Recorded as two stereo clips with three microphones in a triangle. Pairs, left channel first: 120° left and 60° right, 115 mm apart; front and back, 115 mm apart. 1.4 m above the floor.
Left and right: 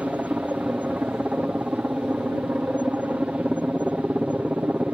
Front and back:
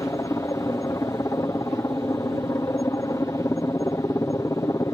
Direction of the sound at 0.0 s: Straight ahead.